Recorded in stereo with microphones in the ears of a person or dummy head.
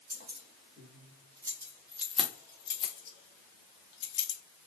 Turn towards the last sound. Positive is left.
turn(degrees=70)  # may be behind; listen again after turning